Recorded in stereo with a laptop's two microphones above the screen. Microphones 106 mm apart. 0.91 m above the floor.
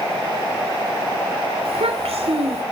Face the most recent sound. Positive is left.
turn(degrees=-80)